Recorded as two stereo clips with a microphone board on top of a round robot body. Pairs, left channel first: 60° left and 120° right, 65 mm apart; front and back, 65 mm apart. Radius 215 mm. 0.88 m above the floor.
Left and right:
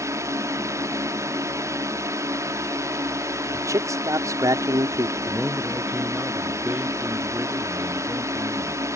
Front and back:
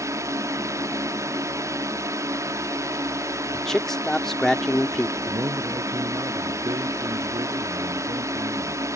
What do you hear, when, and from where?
0.0 s a drone: 150° right
3.5 s a man speaking: 80° right
5.3 s a man speaking: 170° left